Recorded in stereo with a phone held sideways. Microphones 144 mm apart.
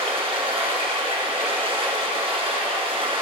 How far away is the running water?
About 2.5 m.